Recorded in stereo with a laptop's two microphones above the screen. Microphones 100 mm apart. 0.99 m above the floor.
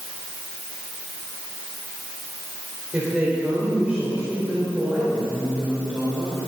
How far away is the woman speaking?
About 4 m.